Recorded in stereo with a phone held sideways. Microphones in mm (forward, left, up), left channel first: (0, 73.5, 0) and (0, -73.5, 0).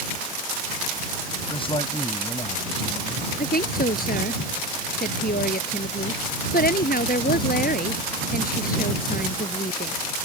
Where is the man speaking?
35° left (ahead or behind).